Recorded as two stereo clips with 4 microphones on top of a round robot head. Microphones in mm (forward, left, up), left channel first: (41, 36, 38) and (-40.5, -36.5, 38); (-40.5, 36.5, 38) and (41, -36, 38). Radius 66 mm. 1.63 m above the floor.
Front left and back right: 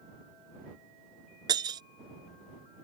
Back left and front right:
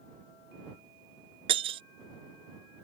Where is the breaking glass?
85° right.